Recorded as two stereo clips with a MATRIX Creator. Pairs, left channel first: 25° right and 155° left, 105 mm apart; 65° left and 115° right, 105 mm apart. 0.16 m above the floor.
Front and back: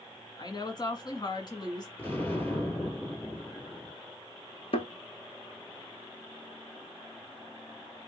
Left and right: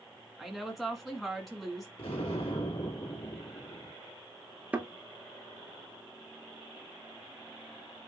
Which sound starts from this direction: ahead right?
A thud, at 4.7 s.